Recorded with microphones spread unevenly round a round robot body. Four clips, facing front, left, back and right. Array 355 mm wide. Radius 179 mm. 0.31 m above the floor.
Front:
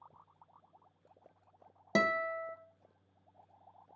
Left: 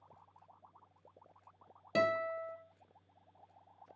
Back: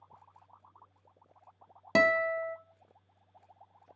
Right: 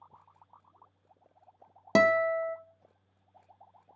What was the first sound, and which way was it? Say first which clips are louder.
A guitar: right 9 dB, back 6 dB; 105° right.